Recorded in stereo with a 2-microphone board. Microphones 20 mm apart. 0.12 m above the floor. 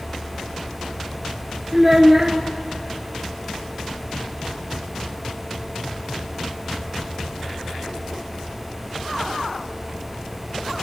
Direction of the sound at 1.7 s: 15° right (ahead or behind).